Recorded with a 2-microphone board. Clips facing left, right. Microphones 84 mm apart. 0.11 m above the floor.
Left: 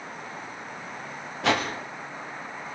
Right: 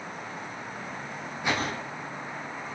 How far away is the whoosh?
About 5.5 m.